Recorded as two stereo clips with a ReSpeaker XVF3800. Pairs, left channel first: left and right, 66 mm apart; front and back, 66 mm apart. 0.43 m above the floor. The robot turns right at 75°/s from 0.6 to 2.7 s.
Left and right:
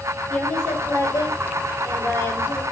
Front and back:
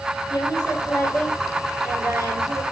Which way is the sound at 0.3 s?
15° left.